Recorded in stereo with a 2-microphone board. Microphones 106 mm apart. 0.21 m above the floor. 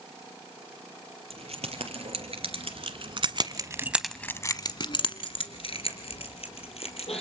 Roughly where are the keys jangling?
Right.